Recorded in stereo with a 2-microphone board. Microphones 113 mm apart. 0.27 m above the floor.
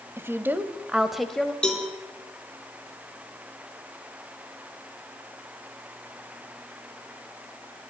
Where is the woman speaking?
20° right (ahead or behind), 1.4 m; by 1.5 s 10° left (ahead or behind), 1.2 m.